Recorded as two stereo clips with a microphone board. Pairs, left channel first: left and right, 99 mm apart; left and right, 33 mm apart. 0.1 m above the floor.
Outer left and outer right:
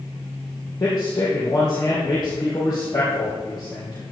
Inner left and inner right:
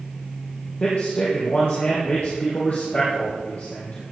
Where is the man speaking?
45° left (ahead or behind), 3.5 m.